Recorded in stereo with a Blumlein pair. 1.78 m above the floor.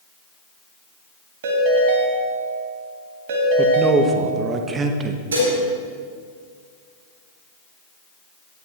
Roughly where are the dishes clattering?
Ahead right.